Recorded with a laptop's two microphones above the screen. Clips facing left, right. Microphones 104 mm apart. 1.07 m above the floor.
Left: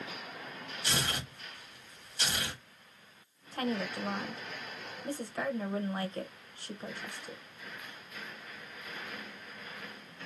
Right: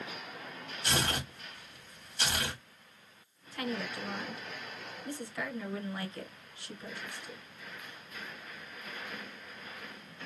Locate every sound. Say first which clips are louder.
0.8 s tearing paper: right 3 dB; 50° right (ahead or behind), 1.3 m
3.5 s a woman speaking: left 3 dB; 40° left (ahead or behind), 0.7 m